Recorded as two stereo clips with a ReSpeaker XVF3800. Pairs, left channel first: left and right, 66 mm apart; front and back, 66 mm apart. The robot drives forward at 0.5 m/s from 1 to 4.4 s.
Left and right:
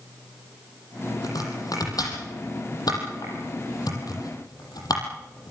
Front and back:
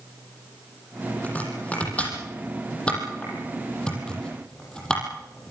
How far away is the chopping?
About 8.5 m.